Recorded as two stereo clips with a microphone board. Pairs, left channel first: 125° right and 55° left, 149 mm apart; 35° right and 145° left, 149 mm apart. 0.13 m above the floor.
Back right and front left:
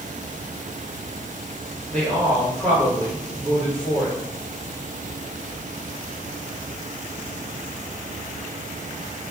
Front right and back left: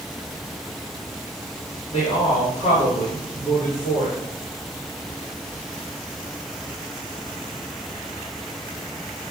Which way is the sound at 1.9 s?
45° right.